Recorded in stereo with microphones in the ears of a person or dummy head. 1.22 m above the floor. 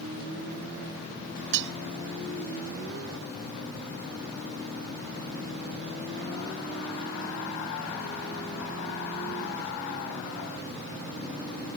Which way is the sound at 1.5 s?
65° right (ahead or behind).